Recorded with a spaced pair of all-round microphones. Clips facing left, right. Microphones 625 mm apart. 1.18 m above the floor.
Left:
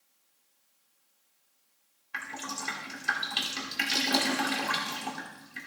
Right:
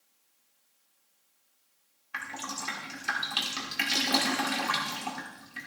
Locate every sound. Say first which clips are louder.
2.1 s dripping: even; 5° right (ahead or behind), 1.1 m